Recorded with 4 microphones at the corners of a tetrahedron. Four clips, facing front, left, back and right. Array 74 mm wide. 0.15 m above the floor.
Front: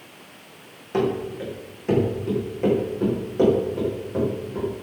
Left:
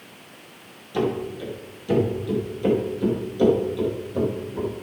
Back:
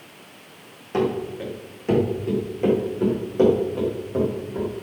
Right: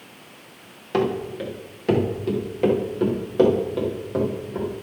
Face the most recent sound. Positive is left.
turn(degrees=-100)